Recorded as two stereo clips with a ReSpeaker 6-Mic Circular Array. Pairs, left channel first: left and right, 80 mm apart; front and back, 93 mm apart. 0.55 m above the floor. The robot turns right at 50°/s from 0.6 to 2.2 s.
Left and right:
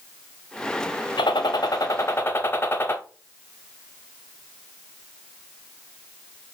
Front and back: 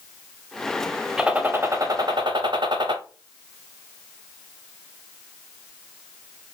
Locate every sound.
1.2 s a gunshot: 100° left, 0.6 m; by 3.0 s 150° left, 0.6 m